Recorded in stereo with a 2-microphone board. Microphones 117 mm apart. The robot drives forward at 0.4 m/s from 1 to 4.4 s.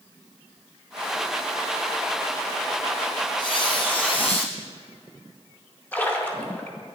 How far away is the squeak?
About 1.4 m.